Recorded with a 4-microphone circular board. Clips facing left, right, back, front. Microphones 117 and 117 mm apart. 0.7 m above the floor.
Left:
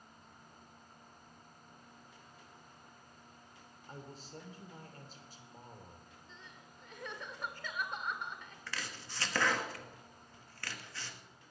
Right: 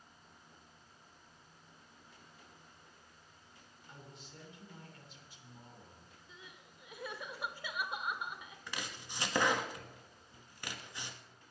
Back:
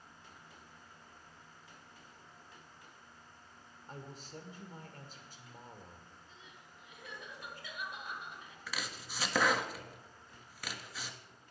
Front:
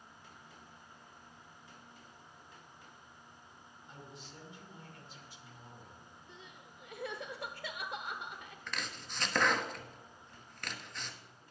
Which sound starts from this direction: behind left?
A man speaking, at 3.9 s.